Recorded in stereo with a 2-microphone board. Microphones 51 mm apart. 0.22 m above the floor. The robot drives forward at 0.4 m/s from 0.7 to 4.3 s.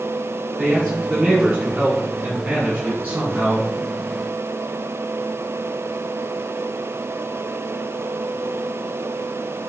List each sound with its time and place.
0.6 s a man speaking: 25° right (ahead or behind), 2.5 m; by 3.7 s 35° right (ahead or behind), 1.9 m